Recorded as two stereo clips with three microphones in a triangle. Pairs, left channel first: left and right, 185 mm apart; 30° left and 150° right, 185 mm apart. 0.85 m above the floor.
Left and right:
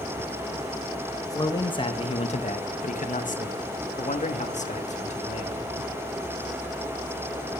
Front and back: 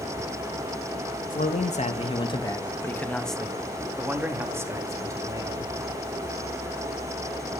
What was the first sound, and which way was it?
A man speaking, 30° left.